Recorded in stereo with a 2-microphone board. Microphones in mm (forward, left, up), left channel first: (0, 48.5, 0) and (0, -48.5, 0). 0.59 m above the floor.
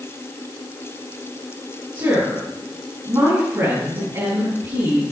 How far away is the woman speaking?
About 4.5 m.